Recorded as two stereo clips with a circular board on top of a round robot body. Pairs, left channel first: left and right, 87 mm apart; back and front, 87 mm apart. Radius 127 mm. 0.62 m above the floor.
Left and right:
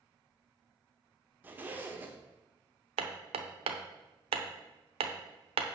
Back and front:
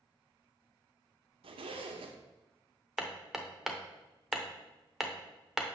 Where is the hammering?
85° right, 0.6 m.